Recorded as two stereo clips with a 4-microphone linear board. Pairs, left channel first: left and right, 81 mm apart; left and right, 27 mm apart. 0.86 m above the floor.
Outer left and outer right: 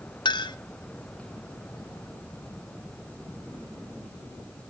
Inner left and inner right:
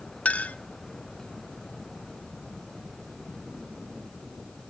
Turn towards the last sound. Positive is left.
turn(degrees=65)  # may be behind; listen again after turning